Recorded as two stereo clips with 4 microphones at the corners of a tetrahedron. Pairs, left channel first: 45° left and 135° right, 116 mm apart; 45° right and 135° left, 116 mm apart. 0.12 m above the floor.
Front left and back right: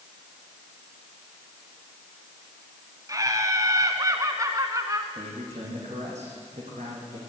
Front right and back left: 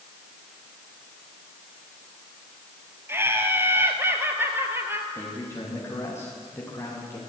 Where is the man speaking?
115° right, 7.5 m.